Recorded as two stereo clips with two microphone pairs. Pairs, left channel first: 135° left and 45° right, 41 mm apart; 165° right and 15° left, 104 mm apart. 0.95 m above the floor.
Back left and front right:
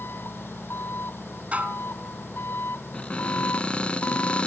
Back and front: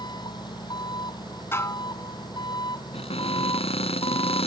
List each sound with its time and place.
0.0 s an engine running: 150° left
1.5 s dishes clattering: 100° right
2.9 s a cupboard door: 170° right